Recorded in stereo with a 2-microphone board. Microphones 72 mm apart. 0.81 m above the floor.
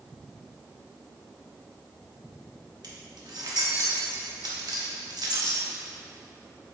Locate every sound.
2.8 s keys jangling: 70° right (ahead or behind), 1.1 m